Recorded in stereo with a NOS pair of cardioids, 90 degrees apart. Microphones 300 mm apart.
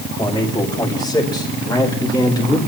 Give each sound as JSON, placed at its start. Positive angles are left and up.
{"t": 0.2, "sound": "a man speaking", "azimuth_deg": 15, "distance_m": 5.0}